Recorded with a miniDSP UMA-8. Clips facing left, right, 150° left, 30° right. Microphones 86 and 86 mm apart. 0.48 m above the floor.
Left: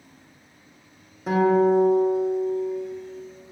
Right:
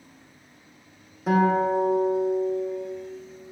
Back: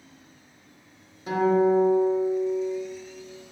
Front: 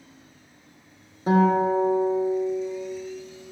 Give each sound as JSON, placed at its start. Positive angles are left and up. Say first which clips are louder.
{"t": 1.3, "sound": "a guitar", "louder": "left 3 dB, front 1 dB", "azimuth_deg": 0, "distance_m": 1.0}